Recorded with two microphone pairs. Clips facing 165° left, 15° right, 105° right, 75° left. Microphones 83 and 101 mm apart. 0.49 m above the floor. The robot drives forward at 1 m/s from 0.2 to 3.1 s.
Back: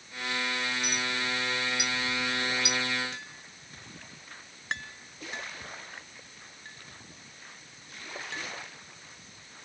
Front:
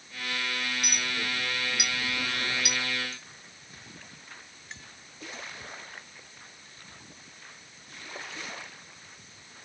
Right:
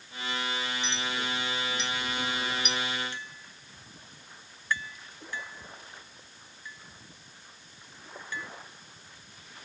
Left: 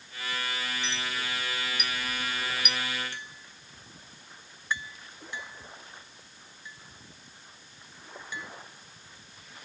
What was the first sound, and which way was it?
A clink, 30° right.